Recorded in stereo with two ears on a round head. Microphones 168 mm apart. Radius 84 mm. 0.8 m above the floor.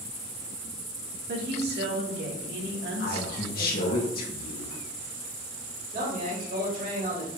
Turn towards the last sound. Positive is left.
turn(degrees=-50)  # may be behind; listen again after turning